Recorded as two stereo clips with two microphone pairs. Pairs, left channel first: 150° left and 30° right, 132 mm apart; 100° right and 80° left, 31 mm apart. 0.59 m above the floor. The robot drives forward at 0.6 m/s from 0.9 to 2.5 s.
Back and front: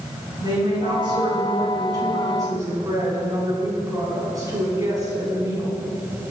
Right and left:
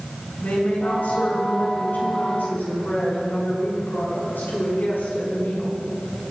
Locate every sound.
0.4 s a woman speaking: 85° right, 6 m; by 5.8 s 95° right, 6 m